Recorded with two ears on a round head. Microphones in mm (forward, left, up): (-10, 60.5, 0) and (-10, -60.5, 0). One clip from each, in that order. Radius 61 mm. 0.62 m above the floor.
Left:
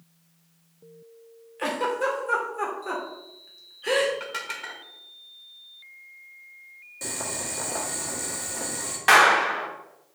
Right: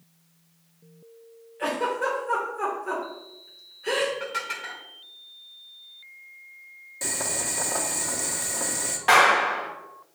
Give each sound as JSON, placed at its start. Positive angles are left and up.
{"t": 1.6, "sound": "a giggle", "side_deg": 60, "distance_m": 2.0}
{"t": 4.2, "sound": "dishes clattering", "side_deg": 30, "distance_m": 1.6}
{"t": 7.0, "sound": "boiling", "side_deg": -15, "distance_m": 1.3}
{"t": 9.1, "sound": "a clap", "side_deg": 35, "distance_m": 1.1}